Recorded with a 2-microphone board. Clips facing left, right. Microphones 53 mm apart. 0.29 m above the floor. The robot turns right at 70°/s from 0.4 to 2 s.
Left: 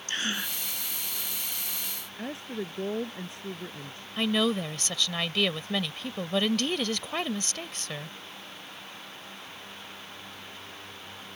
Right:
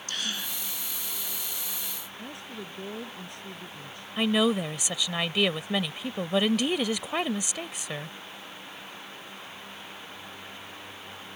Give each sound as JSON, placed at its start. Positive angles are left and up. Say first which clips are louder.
{"t": 0.1, "sound": "a gasp", "louder": "left 3 dB", "side_deg": 35}
{"t": 2.2, "sound": "a woman speaking", "louder": "left 7 dB", "side_deg": 30}
{"t": 4.2, "sound": "a woman speaking", "louder": "right 2 dB", "side_deg": -10}